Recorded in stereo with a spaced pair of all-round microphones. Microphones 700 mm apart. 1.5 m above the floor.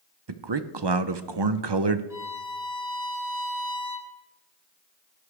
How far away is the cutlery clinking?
I don't hear cutlery clinking.